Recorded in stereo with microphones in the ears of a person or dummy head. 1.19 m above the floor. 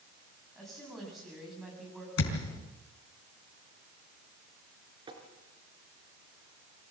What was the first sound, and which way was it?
A woman speaking, 5° left (ahead or behind).